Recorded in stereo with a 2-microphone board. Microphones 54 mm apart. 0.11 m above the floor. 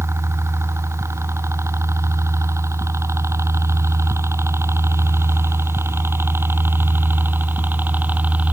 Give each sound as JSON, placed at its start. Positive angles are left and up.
{"t": 0.0, "sound": "a helicopter", "side_deg": -65}